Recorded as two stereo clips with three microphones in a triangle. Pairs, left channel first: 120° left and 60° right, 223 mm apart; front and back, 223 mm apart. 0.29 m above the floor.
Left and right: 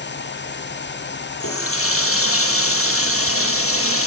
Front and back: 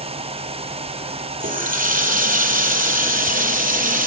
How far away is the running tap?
About 5.5 m.